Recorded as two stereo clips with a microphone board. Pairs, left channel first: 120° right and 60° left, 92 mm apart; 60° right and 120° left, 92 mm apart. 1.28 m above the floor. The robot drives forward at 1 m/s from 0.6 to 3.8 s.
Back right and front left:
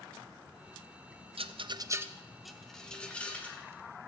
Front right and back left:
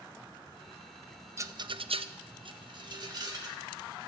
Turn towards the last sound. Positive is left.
turn(degrees=165)